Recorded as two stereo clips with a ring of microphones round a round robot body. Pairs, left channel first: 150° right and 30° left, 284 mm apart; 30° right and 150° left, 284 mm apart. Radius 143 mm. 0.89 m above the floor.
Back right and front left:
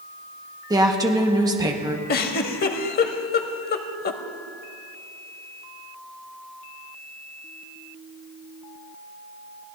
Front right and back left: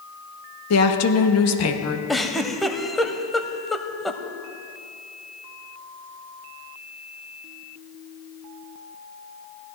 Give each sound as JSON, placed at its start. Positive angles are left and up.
{"t": 0.7, "sound": "a woman speaking", "azimuth_deg": -45, "distance_m": 1.3}
{"t": 2.1, "sound": "a giggle", "azimuth_deg": -120, "distance_m": 0.8}